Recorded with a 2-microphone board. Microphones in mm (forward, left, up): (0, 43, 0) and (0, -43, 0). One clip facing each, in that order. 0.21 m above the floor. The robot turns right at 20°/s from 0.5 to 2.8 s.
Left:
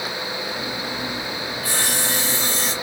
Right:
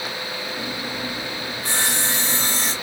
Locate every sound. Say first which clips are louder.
1.6 s sawing: right 1 dB; 30° right (ahead or behind), 1.2 m; by 2.7 s 35° right (ahead or behind), 1.2 m